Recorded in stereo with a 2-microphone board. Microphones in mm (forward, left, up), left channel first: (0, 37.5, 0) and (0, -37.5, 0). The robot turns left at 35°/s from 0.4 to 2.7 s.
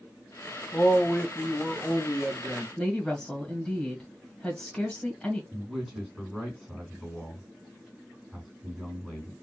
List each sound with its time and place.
0.7 s a man speaking: 20° left, 1.0 m; by 2.7 s 50° right, 1.0 m
2.8 s a woman speaking: 15° left (ahead or behind), 1.7 m
5.5 s a man speaking: 5° right (ahead or behind), 3 m